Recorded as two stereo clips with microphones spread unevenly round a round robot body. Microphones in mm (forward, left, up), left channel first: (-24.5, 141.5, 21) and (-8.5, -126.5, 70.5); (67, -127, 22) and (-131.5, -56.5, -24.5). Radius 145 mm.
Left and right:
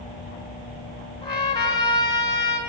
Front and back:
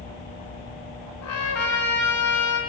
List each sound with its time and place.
1.2 s a trumpet: 20° left, 5.5 m